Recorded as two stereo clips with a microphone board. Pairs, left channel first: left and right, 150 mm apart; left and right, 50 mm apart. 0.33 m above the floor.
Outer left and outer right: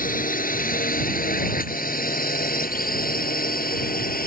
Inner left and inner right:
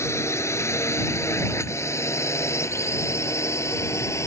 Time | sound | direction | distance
0.0 | a drone | 70° left (ahead or behind) | ?